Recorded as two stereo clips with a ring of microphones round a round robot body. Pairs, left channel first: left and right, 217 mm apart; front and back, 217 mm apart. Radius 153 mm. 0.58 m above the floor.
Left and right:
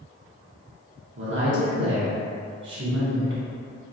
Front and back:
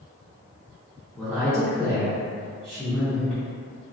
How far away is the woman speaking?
About 0.9 m.